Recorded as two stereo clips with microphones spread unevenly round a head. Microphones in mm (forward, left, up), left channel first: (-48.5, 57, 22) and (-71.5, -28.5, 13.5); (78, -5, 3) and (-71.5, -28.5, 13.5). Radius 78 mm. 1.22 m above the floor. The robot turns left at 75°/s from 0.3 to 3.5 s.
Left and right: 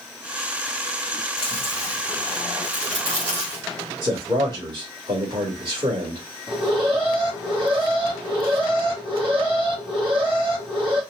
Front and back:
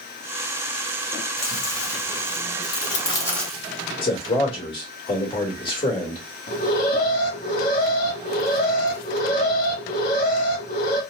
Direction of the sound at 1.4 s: 75° left.